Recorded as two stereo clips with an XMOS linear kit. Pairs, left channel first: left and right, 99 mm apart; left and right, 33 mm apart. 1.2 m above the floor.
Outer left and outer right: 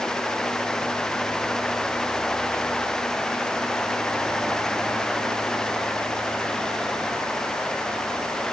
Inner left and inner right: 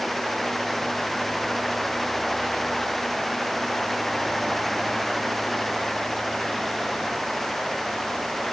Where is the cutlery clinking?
No cutlery clinking in this recording.